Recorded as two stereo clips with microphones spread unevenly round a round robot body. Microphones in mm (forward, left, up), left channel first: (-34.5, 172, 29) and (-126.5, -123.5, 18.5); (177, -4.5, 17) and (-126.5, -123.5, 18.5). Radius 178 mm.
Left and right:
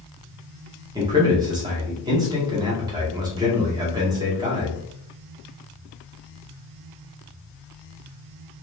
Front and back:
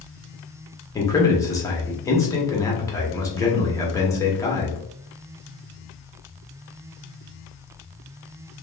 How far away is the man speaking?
About 0.8 m.